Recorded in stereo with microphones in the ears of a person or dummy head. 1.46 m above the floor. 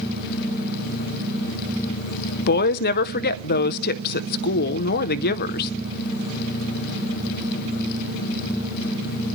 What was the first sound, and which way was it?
A woman speaking, 50° left (ahead or behind).